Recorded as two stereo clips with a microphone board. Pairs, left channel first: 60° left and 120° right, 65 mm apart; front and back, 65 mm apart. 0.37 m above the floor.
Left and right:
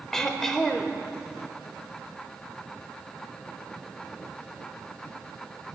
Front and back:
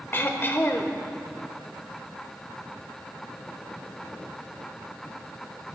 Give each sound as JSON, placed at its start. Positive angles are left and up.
{"t": 0.1, "sound": "throat clearing", "azimuth_deg": -15, "distance_m": 0.7}